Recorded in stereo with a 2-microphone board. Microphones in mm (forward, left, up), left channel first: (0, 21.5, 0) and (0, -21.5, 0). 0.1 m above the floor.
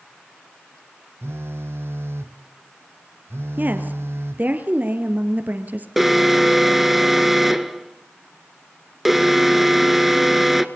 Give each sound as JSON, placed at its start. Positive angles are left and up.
{"t": 1.2, "sound": "a phone buzzing", "side_deg": -70, "distance_m": 0.8}
{"t": 3.6, "sound": "a woman speaking", "side_deg": -40, "distance_m": 2.5}
{"t": 6.0, "sound": "an alarm", "side_deg": -5, "distance_m": 1.0}